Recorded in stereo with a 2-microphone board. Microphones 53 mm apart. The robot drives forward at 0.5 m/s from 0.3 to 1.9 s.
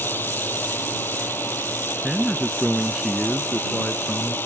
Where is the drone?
40° left (ahead or behind).